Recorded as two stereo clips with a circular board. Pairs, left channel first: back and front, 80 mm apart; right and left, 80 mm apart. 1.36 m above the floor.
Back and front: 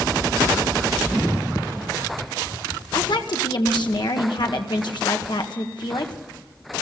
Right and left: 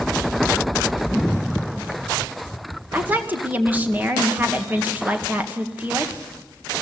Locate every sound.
2.9 s a woman speaking: 160° left, 1.7 m